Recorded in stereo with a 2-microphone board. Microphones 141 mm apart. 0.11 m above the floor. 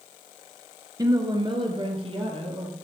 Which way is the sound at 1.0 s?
25° right (ahead or behind).